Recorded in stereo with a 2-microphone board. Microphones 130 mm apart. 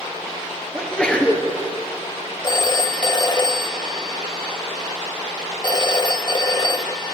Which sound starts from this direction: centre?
A sneeze, at 0.7 s.